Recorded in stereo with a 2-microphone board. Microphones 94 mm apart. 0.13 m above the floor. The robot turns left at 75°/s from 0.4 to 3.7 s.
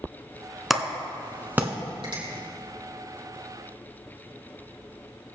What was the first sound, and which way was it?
A clap, centre (ahead or behind).